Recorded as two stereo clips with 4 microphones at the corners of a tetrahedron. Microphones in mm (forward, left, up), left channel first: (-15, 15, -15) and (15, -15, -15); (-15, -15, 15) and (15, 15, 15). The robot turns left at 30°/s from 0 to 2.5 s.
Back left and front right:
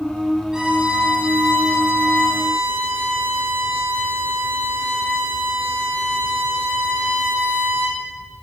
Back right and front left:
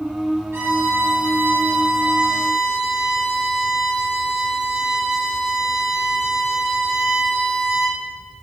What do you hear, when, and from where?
0.5 s a violin: 25° left, 6 m; by 8.0 s 30° right, 6 m